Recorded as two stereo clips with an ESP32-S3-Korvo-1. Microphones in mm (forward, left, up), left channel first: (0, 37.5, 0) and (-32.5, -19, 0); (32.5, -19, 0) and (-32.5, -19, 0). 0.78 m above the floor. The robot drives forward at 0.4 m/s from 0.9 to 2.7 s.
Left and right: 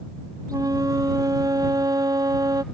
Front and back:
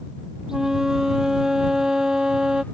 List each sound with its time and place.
0.5 s a flute: 100° right